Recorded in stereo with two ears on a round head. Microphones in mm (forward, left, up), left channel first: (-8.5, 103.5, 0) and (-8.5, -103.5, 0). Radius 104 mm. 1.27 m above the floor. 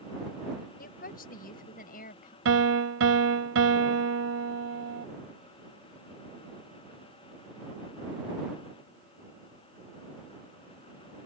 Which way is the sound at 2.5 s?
60° right (ahead or behind).